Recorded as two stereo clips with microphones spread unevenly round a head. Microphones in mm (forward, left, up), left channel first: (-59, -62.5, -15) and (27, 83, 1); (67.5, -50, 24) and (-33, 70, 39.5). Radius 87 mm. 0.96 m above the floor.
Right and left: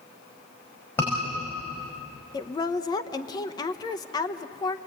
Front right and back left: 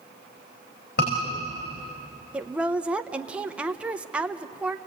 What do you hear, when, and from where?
1.0 s a scream: 45° right, 5.5 m
2.3 s a woman speaking: 145° right, 0.9 m